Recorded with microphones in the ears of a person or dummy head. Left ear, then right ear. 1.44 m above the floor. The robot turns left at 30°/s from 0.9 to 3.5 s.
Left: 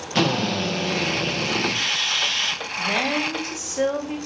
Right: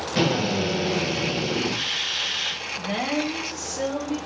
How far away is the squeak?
I don't hear a squeak.